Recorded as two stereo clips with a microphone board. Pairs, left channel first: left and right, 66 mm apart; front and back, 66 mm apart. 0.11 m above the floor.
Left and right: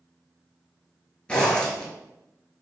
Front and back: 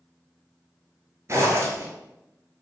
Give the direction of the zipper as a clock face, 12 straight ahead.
7 o'clock.